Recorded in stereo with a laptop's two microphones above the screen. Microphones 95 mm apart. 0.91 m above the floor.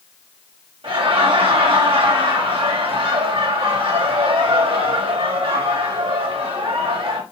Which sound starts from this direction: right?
Laughter, at 0.8 s.